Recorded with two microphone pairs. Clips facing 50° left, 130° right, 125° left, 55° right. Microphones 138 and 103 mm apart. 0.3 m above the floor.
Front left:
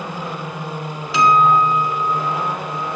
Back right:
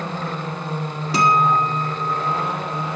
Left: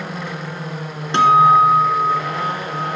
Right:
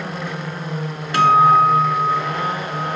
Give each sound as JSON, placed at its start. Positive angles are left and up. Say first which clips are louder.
{"t": 1.1, "sound": "a guitar", "louder": "front left 4 dB, left 1 dB", "azimuth_deg": -175, "distance_m": 1.3}